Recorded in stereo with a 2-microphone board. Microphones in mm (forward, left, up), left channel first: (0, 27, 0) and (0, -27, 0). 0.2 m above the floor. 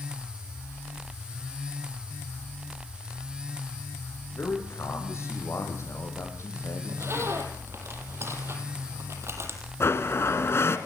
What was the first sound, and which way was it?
A man speaking, 50° left (ahead or behind).